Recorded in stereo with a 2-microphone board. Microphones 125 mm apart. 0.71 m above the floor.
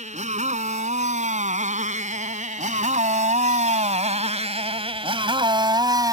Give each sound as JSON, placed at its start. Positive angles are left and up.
{"t": 0.0, "sound": "a motorcycle", "side_deg": -70}